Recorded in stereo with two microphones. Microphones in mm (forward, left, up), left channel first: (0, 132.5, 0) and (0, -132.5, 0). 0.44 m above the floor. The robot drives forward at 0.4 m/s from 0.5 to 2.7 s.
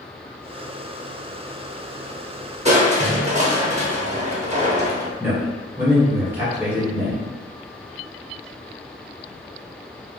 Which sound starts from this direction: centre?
A man speaking, at 5.2 s.